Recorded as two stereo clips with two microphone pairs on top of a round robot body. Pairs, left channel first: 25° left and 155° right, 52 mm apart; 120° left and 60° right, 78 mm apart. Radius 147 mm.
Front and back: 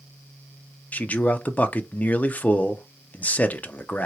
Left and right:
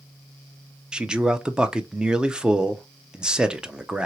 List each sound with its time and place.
0.9 s a man speaking: 20° left, 0.6 m